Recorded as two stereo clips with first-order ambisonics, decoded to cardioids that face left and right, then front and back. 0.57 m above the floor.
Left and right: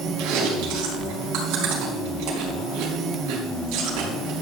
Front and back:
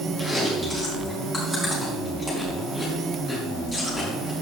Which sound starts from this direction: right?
Chewing, at 0.2 s.